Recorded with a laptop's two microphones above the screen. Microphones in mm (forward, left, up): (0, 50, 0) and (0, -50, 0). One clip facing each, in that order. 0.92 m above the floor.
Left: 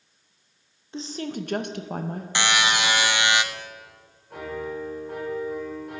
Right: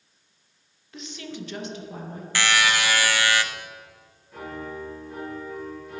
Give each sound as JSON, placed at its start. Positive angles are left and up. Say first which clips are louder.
{"t": 0.9, "sound": "a woman speaking", "louder": "left 6 dB", "side_deg": 25, "distance_m": 0.7}
{"t": 2.4, "sound": "a buzzer", "louder": "even", "side_deg": 20, "distance_m": 0.6}
{"t": 4.3, "sound": "a piano", "louder": "left 3 dB", "side_deg": 60, "distance_m": 2.0}